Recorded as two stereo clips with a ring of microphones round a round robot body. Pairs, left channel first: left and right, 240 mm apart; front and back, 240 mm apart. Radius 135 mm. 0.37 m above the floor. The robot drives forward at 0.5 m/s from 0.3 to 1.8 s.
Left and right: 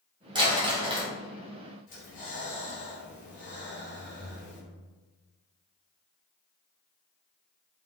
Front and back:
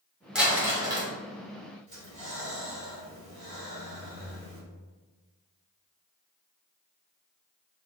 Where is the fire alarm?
No fire alarm in this recording.